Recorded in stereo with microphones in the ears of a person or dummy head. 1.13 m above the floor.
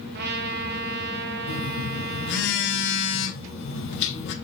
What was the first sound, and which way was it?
A trumpet, 60° right (ahead or behind).